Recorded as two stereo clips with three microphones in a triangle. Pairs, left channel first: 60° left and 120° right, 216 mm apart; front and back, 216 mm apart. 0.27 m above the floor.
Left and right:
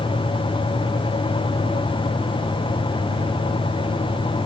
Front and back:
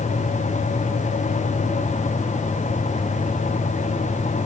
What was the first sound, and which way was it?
Only background noise.